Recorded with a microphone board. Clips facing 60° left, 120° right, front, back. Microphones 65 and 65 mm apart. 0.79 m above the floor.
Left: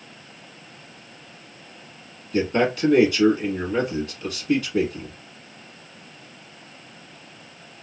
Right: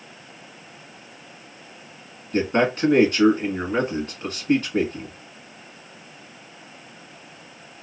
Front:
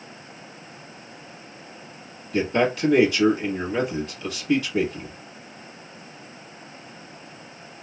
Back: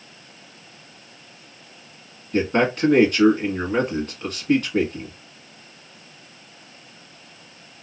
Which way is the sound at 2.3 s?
150° right.